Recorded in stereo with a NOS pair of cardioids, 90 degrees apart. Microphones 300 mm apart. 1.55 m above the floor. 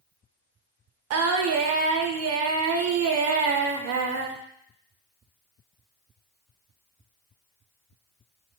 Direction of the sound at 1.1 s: 55° right.